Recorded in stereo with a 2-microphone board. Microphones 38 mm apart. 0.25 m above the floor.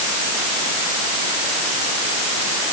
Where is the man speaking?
No man speaking in this recording.